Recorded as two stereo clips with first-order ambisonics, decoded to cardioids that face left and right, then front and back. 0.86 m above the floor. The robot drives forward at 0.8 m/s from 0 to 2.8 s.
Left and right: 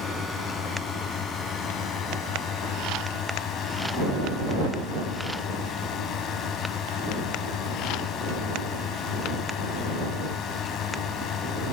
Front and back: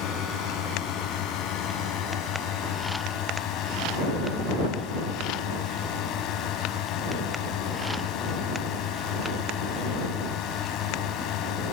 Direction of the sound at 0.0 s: 30° left.